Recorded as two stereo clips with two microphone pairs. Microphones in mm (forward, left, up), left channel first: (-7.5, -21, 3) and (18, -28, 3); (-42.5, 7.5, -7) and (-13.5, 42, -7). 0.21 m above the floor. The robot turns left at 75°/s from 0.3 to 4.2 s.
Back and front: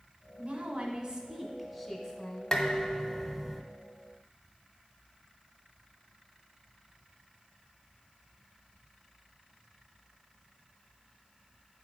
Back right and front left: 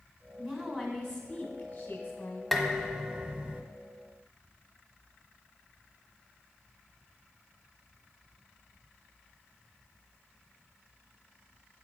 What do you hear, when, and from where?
0.4 s a woman speaking: straight ahead, 1.4 m; by 2.6 s 160° right, 1.4 m
2.5 s dishes clattering: 150° left, 0.7 m; by 3.6 s 65° left, 0.7 m